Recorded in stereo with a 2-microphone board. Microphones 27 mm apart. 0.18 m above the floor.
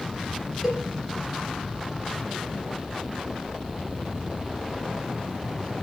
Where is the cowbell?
10° right (ahead or behind), 3.5 m.